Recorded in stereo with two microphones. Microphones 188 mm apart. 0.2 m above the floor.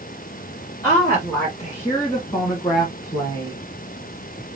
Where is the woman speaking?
15° left (ahead or behind), 3 m; by 3.6 s 25° left (ahead or behind), 1.7 m.